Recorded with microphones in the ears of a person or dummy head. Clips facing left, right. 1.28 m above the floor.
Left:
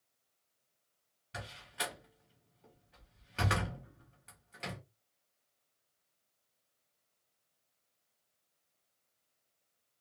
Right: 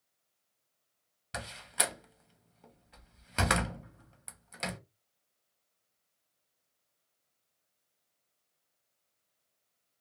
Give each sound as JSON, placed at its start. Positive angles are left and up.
{"t": 1.3, "sound": "a door slam", "side_deg": -70, "distance_m": 0.7}